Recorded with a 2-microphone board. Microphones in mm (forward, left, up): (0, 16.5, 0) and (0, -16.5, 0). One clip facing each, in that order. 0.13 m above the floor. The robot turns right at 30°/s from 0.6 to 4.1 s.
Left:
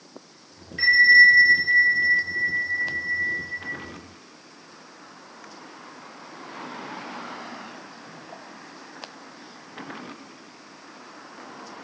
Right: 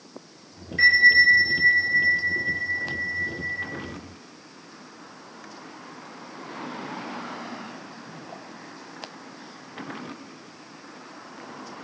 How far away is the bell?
About 2 m.